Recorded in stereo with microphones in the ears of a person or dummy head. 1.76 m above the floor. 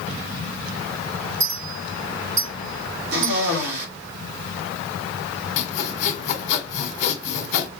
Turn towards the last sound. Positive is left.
turn(degrees=45)  # may be behind; listen again after turning